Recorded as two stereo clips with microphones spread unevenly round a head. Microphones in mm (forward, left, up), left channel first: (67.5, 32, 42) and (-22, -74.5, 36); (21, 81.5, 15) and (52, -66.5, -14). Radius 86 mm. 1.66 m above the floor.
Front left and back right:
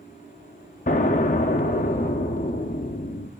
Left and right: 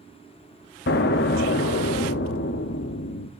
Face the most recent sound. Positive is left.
turn(degrees=100)